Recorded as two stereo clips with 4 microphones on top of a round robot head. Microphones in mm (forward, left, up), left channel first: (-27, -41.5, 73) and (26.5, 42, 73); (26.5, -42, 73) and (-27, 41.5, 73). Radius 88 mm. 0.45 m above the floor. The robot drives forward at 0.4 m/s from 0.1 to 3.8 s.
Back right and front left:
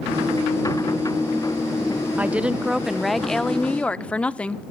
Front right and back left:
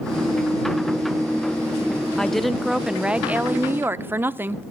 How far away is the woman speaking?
About 0.8 m.